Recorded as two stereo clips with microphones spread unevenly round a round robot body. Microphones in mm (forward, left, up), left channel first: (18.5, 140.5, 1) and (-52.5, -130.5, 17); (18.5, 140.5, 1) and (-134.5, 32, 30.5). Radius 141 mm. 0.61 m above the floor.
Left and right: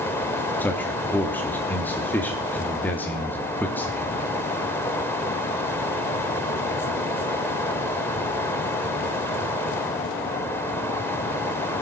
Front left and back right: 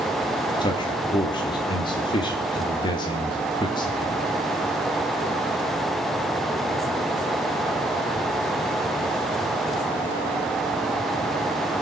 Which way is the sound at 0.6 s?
Straight ahead.